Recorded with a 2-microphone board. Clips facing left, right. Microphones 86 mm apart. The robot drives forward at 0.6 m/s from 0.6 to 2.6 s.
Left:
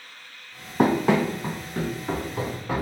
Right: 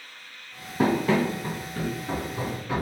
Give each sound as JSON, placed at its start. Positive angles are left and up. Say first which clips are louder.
{"t": 0.8, "sound": "running footsteps", "louder": "left 2 dB", "side_deg": 65, "distance_m": 0.6}